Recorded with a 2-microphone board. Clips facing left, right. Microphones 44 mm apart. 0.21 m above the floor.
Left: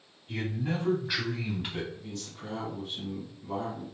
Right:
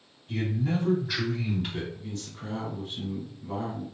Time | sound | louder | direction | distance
0.3 | a man speaking | right 3 dB | 20° left (ahead or behind) | 1.4 m
1.9 | a man speaking | right 2 dB | 35° right (ahead or behind) | 1.9 m